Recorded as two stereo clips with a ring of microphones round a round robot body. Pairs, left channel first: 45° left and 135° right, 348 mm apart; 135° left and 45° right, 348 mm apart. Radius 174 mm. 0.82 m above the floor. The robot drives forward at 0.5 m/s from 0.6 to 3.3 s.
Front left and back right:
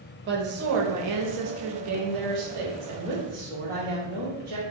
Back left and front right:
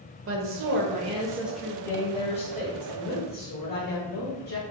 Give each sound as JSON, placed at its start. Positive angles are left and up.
{"t": 0.3, "sound": "a woman speaking", "azimuth_deg": -85, "distance_m": 0.6}